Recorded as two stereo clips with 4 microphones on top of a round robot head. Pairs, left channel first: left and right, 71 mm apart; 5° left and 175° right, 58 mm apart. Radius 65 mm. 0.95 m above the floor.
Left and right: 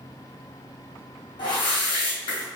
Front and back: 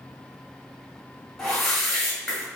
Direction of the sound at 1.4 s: 95° left.